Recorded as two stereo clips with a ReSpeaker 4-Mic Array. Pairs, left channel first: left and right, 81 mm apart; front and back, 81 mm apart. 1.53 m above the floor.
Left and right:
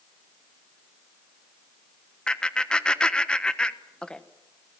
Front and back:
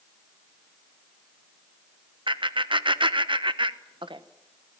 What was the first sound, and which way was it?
Laughter, 170° left.